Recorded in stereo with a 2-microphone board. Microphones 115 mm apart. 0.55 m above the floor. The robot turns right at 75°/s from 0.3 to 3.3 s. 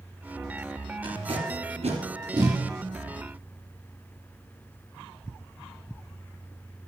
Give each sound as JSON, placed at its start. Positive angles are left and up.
{"t": 1.0, "sound": "tape being pulled", "side_deg": -40, "distance_m": 1.9}